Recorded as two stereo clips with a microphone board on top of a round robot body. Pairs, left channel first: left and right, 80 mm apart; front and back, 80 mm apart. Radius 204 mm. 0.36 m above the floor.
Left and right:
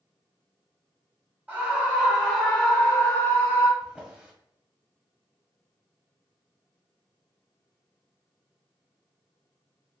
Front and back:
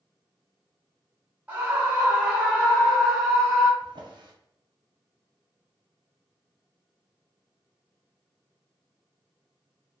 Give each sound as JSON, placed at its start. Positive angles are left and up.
{"t": 1.5, "sound": "a scream", "azimuth_deg": -130, "distance_m": 1.5}
{"t": 3.8, "sound": "a drawer", "azimuth_deg": -165, "distance_m": 0.9}